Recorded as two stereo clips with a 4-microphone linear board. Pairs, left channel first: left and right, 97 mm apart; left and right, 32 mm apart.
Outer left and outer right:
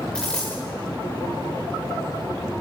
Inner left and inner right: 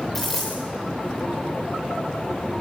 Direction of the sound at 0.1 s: 10° left (ahead or behind).